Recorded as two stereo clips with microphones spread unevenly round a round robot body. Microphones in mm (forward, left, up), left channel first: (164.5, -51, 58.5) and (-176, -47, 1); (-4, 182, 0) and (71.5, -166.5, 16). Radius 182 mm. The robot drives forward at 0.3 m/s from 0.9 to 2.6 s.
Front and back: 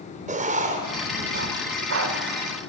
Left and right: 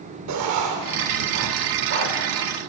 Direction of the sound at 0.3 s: 120° right.